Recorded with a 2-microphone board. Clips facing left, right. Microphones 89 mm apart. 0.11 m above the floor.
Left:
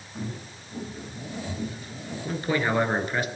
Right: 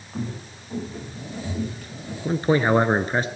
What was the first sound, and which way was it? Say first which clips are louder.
Footsteps: right 4 dB; 90° right.